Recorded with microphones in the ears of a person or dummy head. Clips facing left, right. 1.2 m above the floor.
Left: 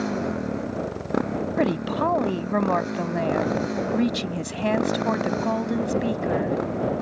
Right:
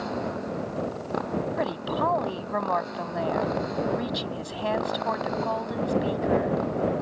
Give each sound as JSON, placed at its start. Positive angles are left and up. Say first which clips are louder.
{"t": 0.0, "sound": "a motorcycle", "louder": "left 4 dB", "side_deg": 30}
{"t": 1.6, "sound": "a woman speaking", "louder": "left 5 dB", "side_deg": 35}